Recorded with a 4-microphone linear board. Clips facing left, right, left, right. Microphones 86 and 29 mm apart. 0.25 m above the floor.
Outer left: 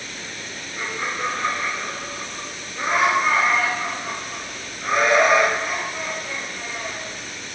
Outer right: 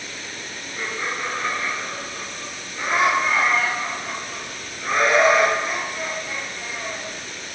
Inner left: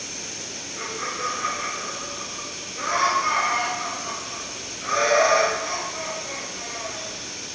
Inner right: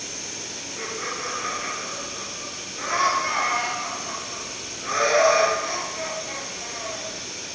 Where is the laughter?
5° left (ahead or behind), 1.5 m.